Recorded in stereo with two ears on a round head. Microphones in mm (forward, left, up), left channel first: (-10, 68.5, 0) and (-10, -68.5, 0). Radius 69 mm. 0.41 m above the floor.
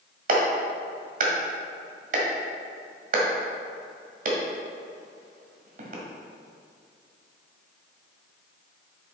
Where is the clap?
50° right (ahead or behind), 1.6 m.